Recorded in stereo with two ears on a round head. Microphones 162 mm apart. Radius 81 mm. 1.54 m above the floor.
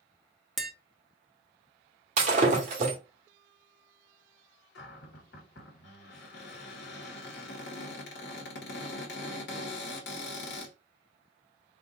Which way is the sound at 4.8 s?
65° left (ahead or behind).